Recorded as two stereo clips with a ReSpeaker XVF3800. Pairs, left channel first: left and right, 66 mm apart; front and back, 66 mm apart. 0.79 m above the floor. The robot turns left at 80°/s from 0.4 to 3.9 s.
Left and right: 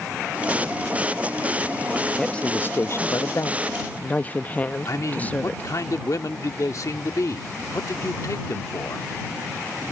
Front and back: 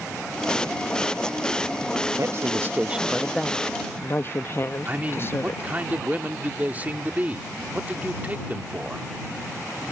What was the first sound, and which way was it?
A woman speaking, 170° left.